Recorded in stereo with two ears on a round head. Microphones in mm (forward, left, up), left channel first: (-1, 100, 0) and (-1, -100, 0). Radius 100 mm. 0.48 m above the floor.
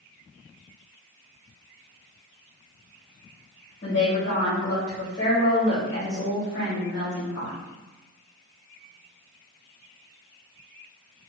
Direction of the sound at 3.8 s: 50° left (ahead or behind).